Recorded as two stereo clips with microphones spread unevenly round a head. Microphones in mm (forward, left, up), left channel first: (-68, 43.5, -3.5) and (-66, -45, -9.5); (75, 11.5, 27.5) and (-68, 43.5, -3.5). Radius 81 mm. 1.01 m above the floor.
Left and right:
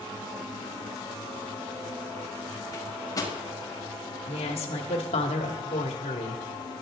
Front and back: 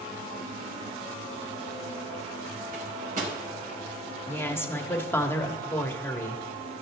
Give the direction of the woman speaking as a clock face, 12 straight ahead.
10 o'clock.